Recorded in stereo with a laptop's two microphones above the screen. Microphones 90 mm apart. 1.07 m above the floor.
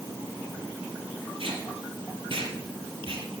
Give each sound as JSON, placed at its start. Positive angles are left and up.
{"t": 1.4, "sound": "tape being pulled", "side_deg": -75, "distance_m": 4.0}